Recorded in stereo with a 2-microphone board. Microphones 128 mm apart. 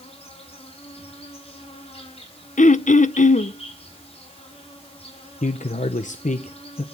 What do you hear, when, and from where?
0.0 s an insect: 50° left (ahead or behind), 5.5 m
2.6 s throat clearing: 75° left (ahead or behind), 0.6 m
5.4 s a man speaking: 75° left (ahead or behind), 0.8 m